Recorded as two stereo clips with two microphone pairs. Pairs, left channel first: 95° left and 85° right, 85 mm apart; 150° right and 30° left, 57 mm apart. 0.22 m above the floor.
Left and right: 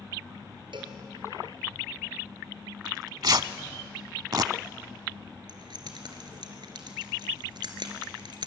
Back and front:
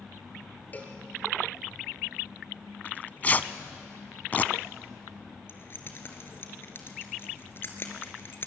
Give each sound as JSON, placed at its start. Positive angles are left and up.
{"t": 0.7, "sound": "a cowbell", "azimuth_deg": -90, "distance_m": 3.0}
{"t": 2.9, "sound": "tearing paper", "azimuth_deg": -90, "distance_m": 0.6}
{"t": 5.5, "sound": "keys jangling", "azimuth_deg": -105, "distance_m": 2.5}